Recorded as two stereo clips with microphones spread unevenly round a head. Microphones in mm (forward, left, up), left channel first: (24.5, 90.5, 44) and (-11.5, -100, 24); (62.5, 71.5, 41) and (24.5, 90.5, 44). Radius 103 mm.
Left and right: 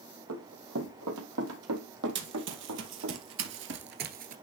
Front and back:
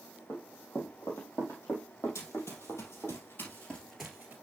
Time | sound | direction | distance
0.3 | running footsteps | 90° right | 4 m
2.1 | running footsteps | 70° right | 3 m